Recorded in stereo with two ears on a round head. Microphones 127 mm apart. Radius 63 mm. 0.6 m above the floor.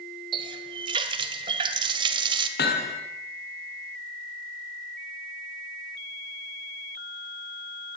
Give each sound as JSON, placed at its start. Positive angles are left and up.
{"t": 0.3, "sound": "a running tap", "side_deg": -35, "distance_m": 2.0}
{"t": 2.6, "sound": "hammering", "side_deg": 75, "distance_m": 4.0}